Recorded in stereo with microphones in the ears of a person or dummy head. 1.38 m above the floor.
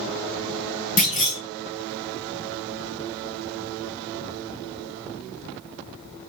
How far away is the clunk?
About 2.5 m.